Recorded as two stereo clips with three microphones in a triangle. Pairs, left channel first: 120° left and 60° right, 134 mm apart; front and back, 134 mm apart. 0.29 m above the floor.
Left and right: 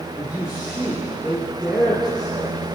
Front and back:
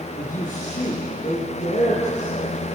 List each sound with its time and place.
0.2 s a man speaking: 25° left, 6 m